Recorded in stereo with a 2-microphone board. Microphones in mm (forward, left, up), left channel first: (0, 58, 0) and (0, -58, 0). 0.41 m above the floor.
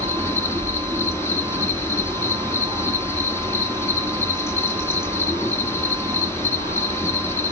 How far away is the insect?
About 1.8 m.